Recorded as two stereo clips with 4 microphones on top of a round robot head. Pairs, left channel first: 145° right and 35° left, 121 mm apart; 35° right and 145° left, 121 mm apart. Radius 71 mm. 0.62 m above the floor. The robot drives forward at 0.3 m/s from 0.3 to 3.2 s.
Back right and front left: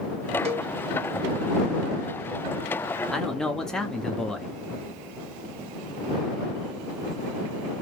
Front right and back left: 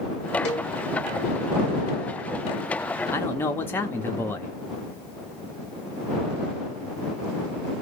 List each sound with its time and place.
0.5 s a cowbell: straight ahead, 1.4 m
3.1 s a man speaking: 65° right, 0.8 m; by 4.5 s 70° right, 0.8 m